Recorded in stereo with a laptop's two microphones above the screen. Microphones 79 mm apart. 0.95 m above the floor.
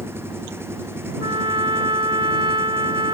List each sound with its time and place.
0.0 s an engine running: 30° right (ahead or behind)
1.2 s a trumpet: 75° right (ahead or behind)